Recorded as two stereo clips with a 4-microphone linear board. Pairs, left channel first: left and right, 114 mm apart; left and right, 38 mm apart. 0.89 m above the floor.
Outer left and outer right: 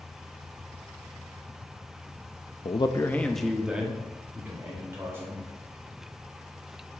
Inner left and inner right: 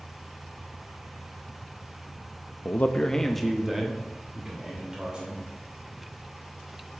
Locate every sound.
2.6 s a man speaking: 60° left (ahead or behind), 0.6 m; by 5.4 s 20° right (ahead or behind), 3 m